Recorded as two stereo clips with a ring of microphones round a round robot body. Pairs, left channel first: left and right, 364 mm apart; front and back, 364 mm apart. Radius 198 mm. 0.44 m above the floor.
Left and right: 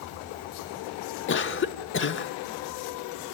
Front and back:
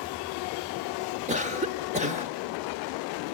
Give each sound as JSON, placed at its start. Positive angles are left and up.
{"t": 1.3, "sound": "a cough", "azimuth_deg": 120, "distance_m": 1.1}